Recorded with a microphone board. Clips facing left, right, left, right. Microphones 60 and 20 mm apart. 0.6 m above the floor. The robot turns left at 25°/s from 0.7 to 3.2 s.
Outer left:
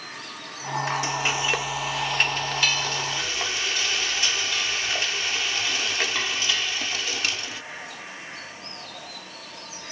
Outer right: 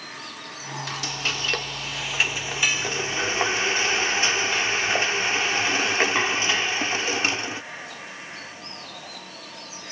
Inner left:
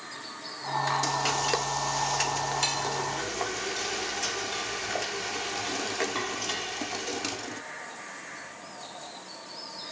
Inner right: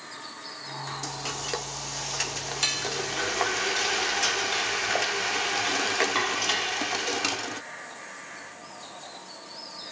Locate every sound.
0.9 s frying: 30° left, 0.6 m; by 7.6 s 30° right, 0.6 m